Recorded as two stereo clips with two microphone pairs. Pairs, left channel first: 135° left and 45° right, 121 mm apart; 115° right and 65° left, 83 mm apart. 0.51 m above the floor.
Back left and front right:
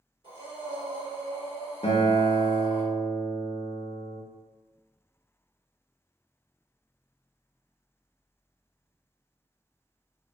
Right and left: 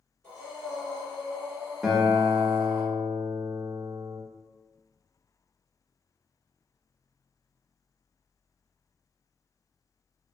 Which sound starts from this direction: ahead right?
Breathing, at 0.2 s.